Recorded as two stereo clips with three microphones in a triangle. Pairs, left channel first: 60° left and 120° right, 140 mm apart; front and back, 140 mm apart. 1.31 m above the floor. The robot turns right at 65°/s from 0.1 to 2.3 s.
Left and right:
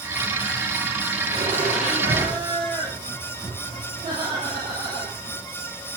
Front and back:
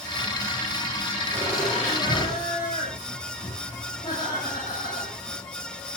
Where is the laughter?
125° right, 8.5 m; by 5.4 s 60° right, 8.5 m.